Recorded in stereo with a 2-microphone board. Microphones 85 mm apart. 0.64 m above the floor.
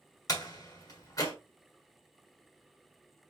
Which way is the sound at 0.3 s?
40° left (ahead or behind).